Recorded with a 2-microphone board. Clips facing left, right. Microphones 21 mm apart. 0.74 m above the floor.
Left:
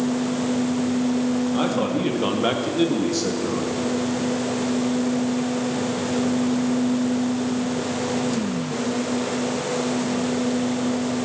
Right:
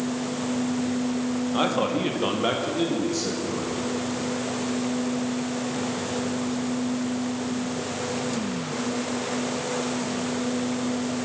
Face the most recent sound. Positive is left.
turn(degrees=35)  # may be behind; listen again after turning